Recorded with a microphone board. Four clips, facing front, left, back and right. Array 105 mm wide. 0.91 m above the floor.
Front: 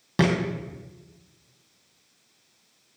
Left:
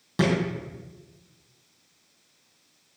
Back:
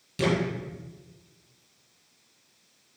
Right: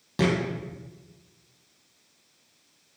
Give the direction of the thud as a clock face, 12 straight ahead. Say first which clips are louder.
Left 1 dB, front 3 dB; 12 o'clock.